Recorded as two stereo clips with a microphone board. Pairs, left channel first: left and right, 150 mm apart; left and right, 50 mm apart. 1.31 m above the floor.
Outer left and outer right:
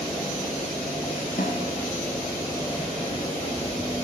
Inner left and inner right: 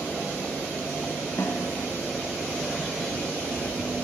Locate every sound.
1.4 s a snare drum: 75° left (ahead or behind), 4 m